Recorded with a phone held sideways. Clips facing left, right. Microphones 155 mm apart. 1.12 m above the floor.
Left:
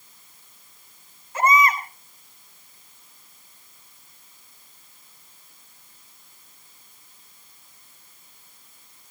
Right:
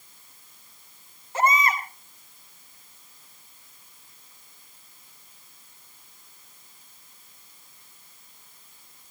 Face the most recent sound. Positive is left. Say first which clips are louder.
# left 3 dB
turn(degrees=-30)  # may be behind; listen again after turning